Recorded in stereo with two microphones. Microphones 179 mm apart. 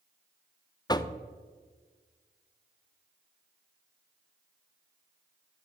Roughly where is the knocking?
Left.